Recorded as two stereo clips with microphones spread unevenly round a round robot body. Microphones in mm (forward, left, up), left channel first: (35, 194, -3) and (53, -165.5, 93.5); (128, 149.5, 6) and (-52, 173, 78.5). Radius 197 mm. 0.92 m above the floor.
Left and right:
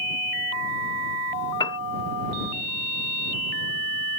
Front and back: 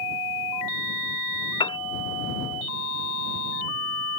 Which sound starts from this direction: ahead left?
A piano, at 1.6 s.